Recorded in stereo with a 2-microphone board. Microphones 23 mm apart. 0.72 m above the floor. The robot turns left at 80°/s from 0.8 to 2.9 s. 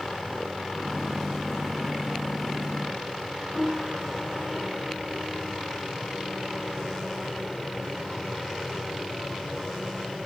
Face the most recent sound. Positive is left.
turn(degrees=-50)  # may be behind; listen again after turning